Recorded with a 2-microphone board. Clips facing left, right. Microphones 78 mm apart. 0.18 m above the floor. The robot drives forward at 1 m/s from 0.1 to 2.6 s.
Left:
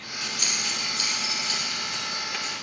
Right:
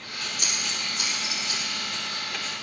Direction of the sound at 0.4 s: 35° right (ahead or behind).